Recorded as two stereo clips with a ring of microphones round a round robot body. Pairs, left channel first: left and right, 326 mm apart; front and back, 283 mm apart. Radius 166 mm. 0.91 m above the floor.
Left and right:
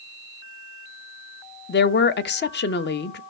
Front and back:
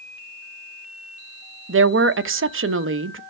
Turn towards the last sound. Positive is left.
turn(degrees=145)